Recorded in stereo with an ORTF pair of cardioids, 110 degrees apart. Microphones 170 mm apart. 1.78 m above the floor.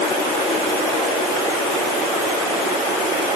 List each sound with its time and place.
Only background noise.